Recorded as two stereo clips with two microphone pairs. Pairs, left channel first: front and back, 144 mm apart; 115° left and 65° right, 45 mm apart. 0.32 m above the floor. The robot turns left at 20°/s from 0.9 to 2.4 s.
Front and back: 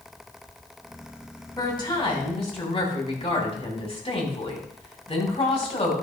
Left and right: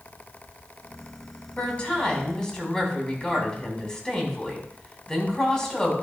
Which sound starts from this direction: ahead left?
A woman speaking, at 1.6 s.